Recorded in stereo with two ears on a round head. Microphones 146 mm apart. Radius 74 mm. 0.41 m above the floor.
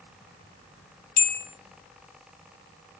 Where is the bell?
55° left (ahead or behind), 2.0 m.